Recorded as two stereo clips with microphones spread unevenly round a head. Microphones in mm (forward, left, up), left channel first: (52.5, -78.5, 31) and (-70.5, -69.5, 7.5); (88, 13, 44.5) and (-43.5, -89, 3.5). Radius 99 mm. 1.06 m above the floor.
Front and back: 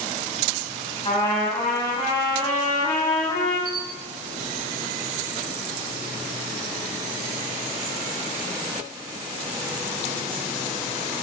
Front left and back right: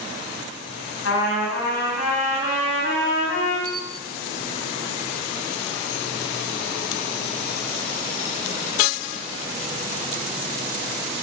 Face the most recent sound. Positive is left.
turn(degrees=140)